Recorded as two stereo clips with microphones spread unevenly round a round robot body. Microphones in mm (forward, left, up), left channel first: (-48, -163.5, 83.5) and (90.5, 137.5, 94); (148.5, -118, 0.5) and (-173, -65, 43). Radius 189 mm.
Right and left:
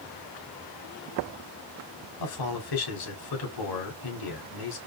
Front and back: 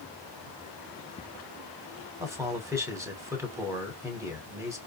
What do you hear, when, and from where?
2.2 s a man speaking: 105° right, 3 m